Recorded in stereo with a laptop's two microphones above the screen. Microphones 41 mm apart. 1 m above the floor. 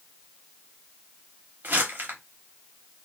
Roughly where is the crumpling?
Right.